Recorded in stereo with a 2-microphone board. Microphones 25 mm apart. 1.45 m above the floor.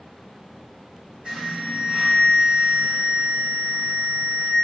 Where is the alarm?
35° right (ahead or behind), 1.8 m.